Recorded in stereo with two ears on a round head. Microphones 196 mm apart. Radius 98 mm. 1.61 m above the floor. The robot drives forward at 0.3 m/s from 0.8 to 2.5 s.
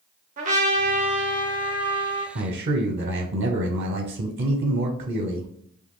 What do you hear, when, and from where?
0.4 s a trumpet: 35° right (ahead or behind), 0.9 m; by 2.2 s 25° right (ahead or behind), 1.3 m
2.4 s a man speaking: 45° right (ahead or behind), 0.6 m; by 5.5 s 50° right (ahead or behind), 0.5 m